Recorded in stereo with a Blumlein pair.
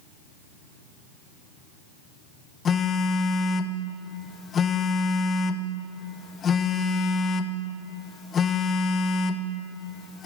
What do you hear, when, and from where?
2.6 s a phone buzzing: 25° left, 0.7 m